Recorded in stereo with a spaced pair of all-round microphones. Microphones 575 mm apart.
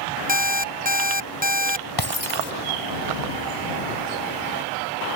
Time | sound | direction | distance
0.3 | an alarm clock | 15° right (ahead or behind) | ?
2.0 | breaking glass | 40° left (ahead or behind) | ?